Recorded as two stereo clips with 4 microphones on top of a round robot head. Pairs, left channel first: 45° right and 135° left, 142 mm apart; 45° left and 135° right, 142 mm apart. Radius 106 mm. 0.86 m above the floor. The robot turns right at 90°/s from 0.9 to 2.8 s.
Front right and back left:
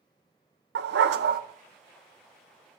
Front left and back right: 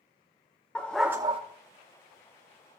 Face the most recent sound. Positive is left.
turn(degrees=-65)